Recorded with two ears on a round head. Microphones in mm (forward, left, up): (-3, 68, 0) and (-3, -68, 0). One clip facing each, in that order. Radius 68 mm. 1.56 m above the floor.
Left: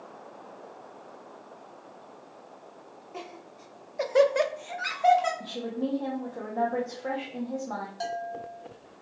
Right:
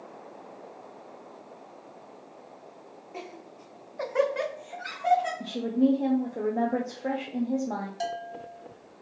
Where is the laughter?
10° right (ahead or behind), 0.9 m; by 5.3 s 75° left (ahead or behind), 0.9 m.